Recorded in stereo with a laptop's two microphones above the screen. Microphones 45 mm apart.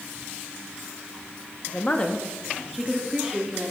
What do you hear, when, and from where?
1.7 s a woman speaking: 40° left (ahead or behind), 1.5 m; by 3.7 s 15° right (ahead or behind), 3 m